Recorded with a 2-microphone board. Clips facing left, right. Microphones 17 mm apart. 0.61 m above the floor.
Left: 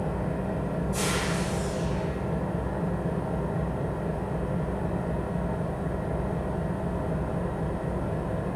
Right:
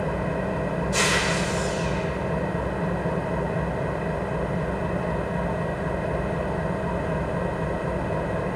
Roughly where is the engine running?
Right.